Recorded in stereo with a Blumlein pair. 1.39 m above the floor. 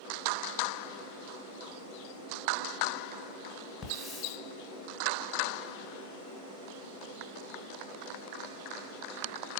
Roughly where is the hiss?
Ahead.